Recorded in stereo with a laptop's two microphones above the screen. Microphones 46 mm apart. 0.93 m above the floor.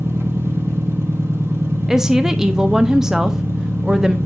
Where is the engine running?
65° right (ahead or behind), 1.4 m.